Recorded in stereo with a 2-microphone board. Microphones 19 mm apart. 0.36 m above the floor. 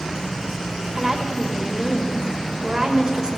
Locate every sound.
0.9 s a woman speaking: 30° right (ahead or behind), 1.5 m